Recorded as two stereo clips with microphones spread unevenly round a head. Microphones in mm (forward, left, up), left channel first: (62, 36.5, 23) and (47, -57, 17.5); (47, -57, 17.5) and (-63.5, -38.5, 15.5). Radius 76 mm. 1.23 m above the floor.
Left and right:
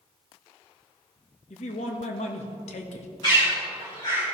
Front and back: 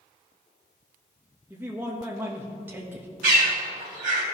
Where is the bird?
145° left, 2.5 m.